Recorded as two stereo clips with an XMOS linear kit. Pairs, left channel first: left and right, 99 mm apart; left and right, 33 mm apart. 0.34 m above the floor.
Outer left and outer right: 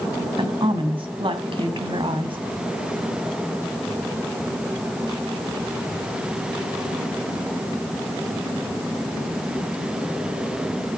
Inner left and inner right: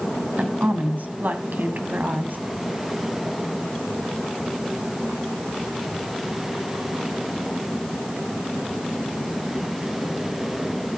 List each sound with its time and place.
0.4 s a woman speaking: 55° right (ahead or behind), 2.5 m